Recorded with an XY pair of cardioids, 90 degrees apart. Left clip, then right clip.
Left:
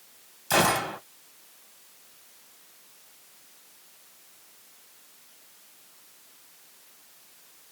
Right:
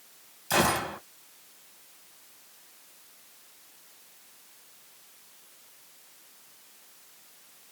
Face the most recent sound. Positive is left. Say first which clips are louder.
# left 2 dB
turn(degrees=25)